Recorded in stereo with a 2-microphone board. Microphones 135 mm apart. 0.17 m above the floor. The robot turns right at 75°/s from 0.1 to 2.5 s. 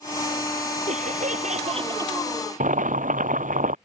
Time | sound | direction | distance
0.9 | laughter | 115° right | ?
2.6 | boiling | 75° right (ahead or behind) | ?